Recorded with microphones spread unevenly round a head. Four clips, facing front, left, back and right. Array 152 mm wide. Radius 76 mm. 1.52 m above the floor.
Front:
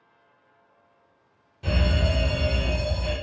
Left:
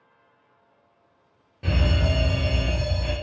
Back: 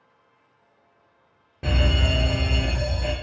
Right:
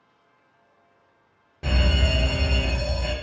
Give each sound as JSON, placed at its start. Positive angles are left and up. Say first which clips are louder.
{"t": 1.6, "sound": "a fire alarm", "louder": "even, back 1 dB", "azimuth_deg": -160, "distance_m": 0.9}